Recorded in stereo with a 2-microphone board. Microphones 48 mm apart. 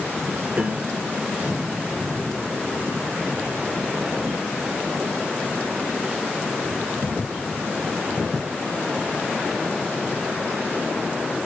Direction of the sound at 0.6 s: 35° right (ahead or behind).